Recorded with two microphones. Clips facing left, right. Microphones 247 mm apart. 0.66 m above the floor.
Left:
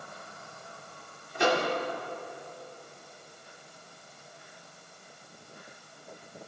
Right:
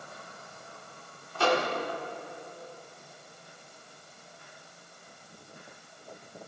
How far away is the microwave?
About 1.5 m.